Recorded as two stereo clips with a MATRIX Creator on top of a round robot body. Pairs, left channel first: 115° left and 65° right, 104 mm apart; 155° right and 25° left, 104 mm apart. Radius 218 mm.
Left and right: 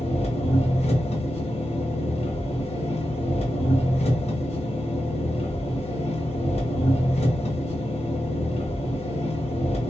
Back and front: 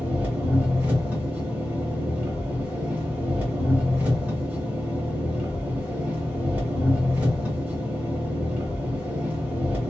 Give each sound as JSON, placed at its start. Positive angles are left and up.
{"t": 0.0, "sound": "an engine running", "azimuth_deg": 100, "distance_m": 0.9}